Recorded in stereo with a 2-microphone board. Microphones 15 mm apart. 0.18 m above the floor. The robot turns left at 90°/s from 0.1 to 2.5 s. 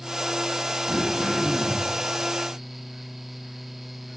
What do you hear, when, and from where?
0.9 s throat clearing: 75° right, 6 m; by 1.9 s 165° right, 6 m